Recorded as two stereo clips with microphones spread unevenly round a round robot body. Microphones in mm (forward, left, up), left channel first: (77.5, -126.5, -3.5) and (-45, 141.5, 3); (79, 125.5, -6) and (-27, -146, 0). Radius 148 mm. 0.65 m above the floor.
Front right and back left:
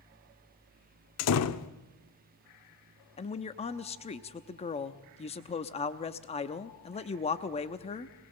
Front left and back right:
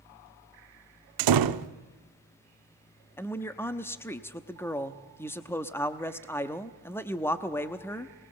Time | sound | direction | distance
1.2 | a door slam | 105° right | 0.8 m
3.2 | a man speaking | 10° right | 0.8 m